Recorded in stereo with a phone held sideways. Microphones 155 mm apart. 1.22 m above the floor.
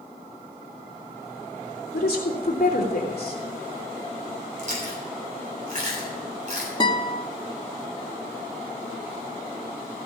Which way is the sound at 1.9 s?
80° left.